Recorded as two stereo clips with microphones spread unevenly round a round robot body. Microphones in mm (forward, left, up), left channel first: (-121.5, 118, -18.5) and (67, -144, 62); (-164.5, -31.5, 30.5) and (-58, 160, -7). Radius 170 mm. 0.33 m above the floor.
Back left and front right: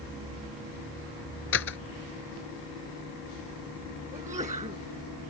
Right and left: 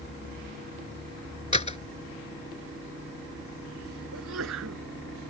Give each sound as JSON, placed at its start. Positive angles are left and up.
{"t": 1.5, "sound": "a door slam", "azimuth_deg": 180}
{"t": 4.1, "sound": "a sneeze", "azimuth_deg": 20}